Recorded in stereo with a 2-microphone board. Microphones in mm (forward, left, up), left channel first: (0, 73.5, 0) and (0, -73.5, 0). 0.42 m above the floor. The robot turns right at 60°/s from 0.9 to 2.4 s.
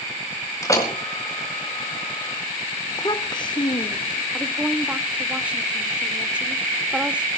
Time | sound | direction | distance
0.6 | a door slam | 20° left (ahead or behind) | 4.5 m
2.9 | a child speaking | 30° left (ahead or behind) | 0.6 m
4.3 | a woman speaking | 10° right (ahead or behind) | 1.1 m